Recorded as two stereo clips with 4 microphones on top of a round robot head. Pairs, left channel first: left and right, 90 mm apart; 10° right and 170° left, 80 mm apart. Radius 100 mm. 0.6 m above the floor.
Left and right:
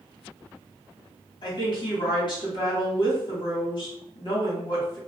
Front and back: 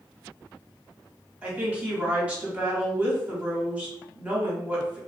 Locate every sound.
1.4 s a woman speaking: 100° left, 1.7 m